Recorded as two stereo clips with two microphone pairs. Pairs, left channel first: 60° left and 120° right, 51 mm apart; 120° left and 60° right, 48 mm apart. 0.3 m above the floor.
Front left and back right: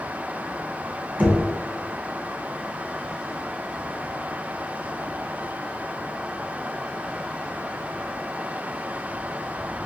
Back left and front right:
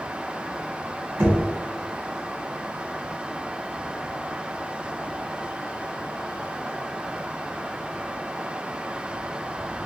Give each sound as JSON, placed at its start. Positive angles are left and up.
{"t": 1.2, "sound": "knocking", "azimuth_deg": -75, "distance_m": 1.4}